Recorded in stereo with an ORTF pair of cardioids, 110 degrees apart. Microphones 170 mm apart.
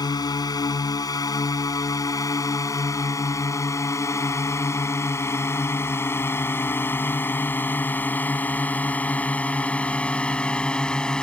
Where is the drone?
25° left; by 11.2 s 5° left.